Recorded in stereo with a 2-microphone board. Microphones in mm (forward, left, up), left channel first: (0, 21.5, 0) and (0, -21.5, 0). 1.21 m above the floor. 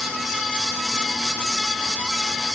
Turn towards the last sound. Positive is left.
No sound to turn to.